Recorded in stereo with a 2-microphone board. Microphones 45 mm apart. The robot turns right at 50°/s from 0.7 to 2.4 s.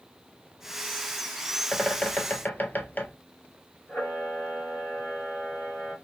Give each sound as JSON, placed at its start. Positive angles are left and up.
{"t": 1.7, "sound": "a bird", "azimuth_deg": 15, "distance_m": 0.7}
{"t": 3.9, "sound": "a camera shutter", "side_deg": 45, "distance_m": 2.0}